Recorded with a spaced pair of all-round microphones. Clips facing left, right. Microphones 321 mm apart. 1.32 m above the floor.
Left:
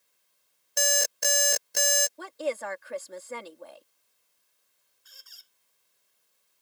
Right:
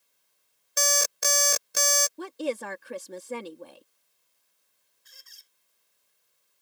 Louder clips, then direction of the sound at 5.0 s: Even; 30° right (ahead or behind).